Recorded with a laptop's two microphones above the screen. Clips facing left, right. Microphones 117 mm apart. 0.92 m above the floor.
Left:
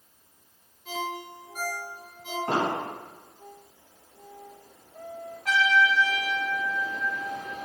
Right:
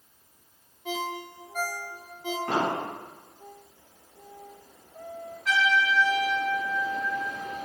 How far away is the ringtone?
About 1.3 m.